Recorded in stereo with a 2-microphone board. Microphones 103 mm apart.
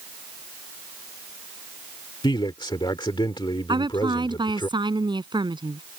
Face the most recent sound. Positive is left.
turn(degrees=-45)  # may be behind; listen again after turning